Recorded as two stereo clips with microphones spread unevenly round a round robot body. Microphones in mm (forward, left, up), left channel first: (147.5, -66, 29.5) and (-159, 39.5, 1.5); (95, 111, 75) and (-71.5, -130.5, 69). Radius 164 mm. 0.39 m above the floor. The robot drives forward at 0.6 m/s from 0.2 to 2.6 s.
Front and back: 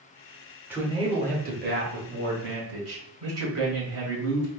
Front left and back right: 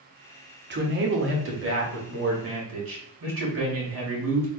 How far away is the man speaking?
About 1.0 m.